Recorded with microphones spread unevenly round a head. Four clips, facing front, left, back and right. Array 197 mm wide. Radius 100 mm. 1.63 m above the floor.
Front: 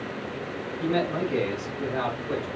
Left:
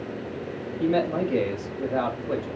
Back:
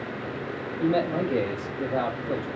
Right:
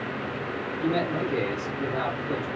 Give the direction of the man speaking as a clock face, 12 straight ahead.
8 o'clock.